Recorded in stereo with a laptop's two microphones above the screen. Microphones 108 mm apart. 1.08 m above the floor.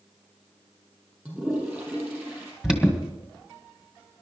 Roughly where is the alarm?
Centre.